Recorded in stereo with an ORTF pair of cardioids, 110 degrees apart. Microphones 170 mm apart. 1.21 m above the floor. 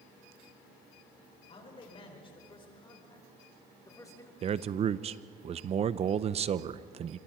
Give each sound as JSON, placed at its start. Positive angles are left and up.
{"t": 1.5, "sound": "a man speaking", "azimuth_deg": 35, "distance_m": 5.5}
{"t": 4.4, "sound": "a man speaking", "azimuth_deg": -40, "distance_m": 0.7}